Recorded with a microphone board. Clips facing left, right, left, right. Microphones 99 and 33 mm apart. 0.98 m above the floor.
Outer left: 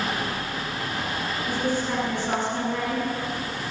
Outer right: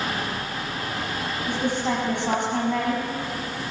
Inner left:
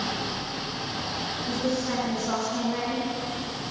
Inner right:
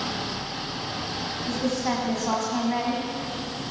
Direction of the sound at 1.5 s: 65° right (ahead or behind).